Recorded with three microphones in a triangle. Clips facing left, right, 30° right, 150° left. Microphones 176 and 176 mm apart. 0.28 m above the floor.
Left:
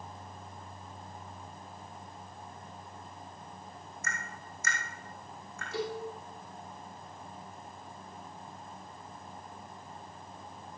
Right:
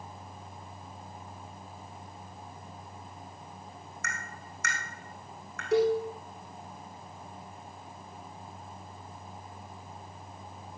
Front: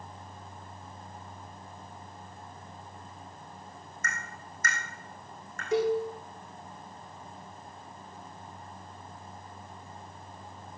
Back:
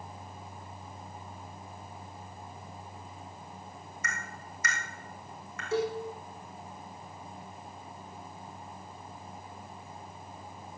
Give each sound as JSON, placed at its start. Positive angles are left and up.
{"t": 4.0, "sound": "tapping", "azimuth_deg": -70, "distance_m": 3.5}
{"t": 5.7, "sound": "a cowbell", "azimuth_deg": -105, "distance_m": 4.5}